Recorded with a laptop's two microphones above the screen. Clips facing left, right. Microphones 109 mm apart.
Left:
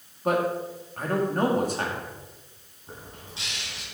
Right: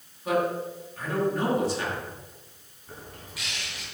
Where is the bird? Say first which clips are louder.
Even; 30° left (ahead or behind), 3 m.